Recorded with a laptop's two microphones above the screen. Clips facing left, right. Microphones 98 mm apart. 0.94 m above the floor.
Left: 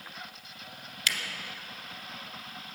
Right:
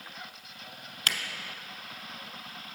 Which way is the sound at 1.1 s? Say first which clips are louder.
Right 1 dB; 45° right (ahead or behind).